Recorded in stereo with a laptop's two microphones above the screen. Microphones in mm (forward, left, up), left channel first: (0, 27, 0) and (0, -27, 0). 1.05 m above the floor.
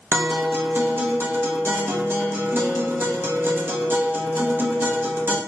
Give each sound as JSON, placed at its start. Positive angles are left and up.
{"t": 0.1, "sound": "a guitar", "side_deg": -45, "distance_m": 0.7}